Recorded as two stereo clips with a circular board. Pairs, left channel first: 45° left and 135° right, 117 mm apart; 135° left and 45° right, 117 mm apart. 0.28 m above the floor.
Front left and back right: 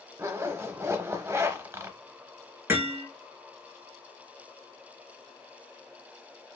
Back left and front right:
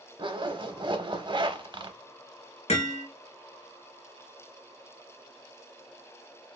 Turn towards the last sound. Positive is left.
turn(degrees=155)